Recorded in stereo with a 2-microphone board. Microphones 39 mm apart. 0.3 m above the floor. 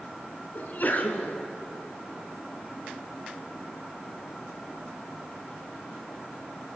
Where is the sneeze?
50° left (ahead or behind), 3.5 m.